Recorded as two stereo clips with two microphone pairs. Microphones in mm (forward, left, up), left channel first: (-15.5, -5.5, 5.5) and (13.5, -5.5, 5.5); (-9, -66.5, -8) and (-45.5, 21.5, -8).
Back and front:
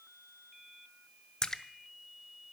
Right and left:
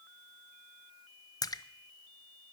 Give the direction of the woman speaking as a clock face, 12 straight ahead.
No woman speaking in this recording.